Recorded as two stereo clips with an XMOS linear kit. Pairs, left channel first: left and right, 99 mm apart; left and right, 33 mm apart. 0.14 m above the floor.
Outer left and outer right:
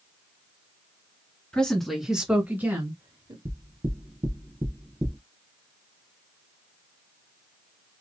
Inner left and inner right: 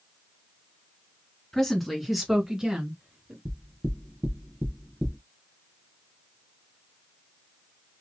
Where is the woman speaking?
10° left (ahead or behind), 1.6 m; by 3.4 s 35° right (ahead or behind), 1.7 m.